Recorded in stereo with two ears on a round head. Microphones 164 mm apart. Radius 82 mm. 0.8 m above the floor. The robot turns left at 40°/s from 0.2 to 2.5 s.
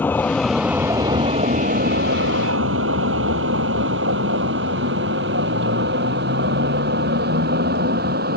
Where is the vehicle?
10° left (ahead or behind); by 8.4 s 55° right (ahead or behind).